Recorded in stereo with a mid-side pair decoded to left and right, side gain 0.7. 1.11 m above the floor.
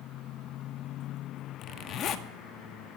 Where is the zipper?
50° left, 1.0 m.